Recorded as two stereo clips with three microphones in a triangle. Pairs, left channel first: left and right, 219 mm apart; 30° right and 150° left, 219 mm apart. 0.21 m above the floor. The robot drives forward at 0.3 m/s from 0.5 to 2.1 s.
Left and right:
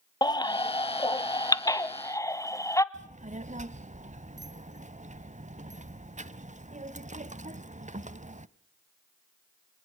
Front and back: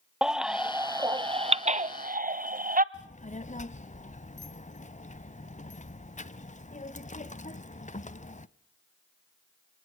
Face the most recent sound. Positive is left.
turn(degrees=-60)